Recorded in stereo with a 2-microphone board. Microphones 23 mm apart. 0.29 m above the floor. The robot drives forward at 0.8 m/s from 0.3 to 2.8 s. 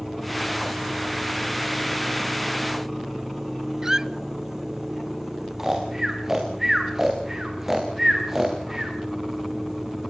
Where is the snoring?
15° right (ahead or behind), 4.5 m.